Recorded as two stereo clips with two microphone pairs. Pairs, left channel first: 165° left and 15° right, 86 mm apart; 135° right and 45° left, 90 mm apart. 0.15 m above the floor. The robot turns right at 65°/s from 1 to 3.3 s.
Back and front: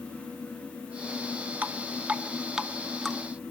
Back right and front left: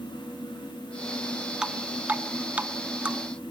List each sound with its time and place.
1.6 s dripping: 10° right, 0.7 m; by 3.2 s 90° left, 0.7 m